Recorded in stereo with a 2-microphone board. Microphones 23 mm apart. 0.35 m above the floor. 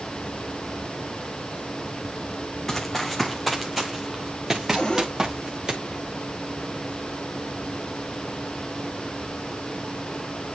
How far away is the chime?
No chime in this recording.